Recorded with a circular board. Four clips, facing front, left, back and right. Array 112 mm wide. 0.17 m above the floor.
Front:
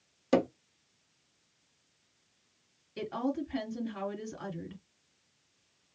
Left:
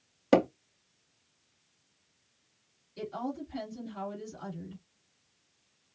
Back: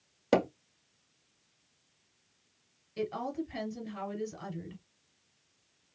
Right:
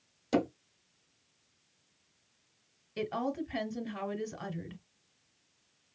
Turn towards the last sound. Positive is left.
turn(degrees=-75)